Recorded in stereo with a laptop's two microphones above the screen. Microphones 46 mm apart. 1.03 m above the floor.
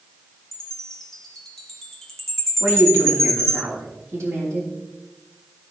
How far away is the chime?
About 1.9 m.